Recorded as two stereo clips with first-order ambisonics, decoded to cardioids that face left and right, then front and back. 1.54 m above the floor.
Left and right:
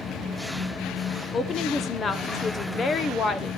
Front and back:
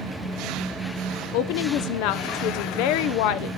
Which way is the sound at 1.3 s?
20° left.